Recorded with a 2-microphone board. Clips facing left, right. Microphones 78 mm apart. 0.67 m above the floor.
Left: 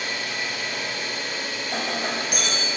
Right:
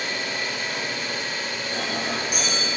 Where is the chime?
I don't hear a chime.